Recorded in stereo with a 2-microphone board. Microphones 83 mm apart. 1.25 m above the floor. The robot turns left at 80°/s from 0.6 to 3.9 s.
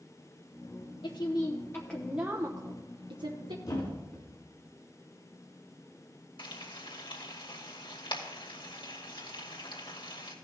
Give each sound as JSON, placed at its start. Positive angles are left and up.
{"t": 1.0, "sound": "a woman speaking", "azimuth_deg": 85, "distance_m": 0.9}
{"t": 3.6, "sound": "a thud", "side_deg": 40, "distance_m": 3.0}
{"t": 6.4, "sound": "frying", "side_deg": 80, "distance_m": 2.0}